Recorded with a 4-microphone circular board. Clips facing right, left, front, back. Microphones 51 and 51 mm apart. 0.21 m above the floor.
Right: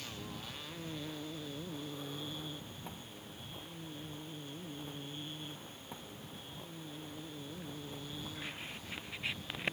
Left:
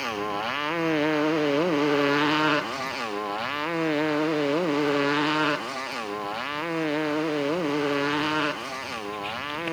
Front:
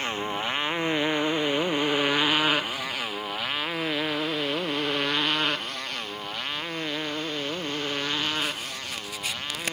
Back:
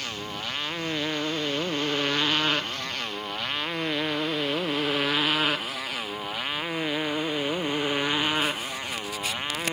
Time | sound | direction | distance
0.0 | a motorcycle | 65° left | ?